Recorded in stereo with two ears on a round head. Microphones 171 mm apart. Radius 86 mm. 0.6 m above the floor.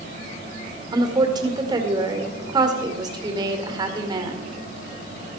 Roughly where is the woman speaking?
Right.